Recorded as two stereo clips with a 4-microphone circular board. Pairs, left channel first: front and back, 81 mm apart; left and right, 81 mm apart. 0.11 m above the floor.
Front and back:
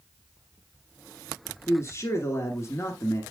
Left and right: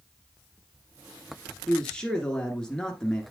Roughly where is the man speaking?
Ahead.